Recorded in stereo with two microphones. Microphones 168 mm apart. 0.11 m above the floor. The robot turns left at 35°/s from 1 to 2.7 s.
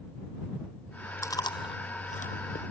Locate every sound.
1.2 s chewing: 15° left (ahead or behind); by 2.6 s 60° left (ahead or behind)